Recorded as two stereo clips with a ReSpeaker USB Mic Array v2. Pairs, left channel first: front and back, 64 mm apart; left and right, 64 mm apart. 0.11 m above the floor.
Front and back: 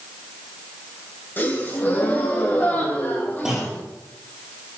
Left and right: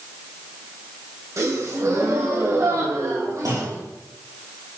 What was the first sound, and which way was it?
A gasp, 55° right.